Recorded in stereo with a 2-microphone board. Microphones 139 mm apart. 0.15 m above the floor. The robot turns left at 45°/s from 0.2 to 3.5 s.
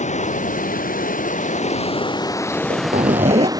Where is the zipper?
80° right; by 3.5 s 125° right.